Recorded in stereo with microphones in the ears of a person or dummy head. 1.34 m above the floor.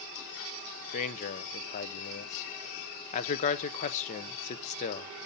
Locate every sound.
0.9 s a man speaking: 45° left (ahead or behind), 0.7 m